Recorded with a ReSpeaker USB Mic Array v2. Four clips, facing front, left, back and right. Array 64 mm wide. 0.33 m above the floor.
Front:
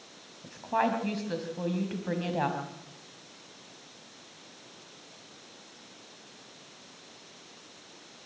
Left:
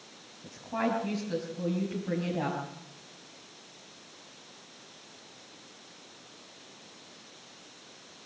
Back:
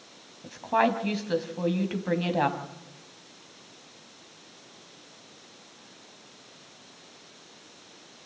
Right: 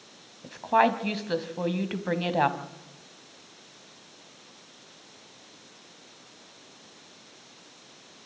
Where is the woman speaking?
105° right, 2.5 m.